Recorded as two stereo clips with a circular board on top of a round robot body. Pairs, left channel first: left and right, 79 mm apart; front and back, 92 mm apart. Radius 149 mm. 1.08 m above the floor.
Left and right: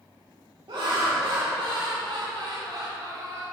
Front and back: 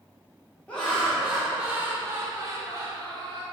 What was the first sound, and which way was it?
Laughter, 80° right.